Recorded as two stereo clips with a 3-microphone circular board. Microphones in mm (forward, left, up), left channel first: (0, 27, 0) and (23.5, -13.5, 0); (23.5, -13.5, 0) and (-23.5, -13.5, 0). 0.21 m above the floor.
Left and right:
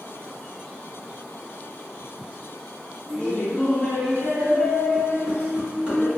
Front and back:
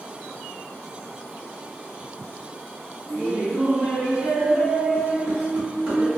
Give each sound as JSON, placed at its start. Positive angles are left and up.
{"t": 3.1, "sound": "laughter", "azimuth_deg": 145, "distance_m": 1.5}